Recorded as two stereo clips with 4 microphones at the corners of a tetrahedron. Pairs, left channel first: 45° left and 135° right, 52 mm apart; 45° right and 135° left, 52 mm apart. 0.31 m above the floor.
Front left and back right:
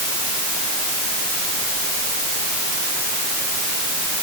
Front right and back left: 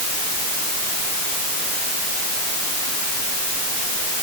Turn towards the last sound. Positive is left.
No sound to turn to.